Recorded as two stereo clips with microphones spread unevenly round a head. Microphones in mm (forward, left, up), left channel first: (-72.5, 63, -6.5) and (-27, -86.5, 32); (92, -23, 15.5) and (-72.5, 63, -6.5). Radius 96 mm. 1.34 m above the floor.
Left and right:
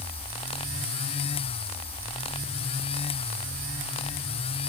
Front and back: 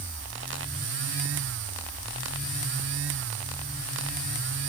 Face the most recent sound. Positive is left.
No sound to turn to.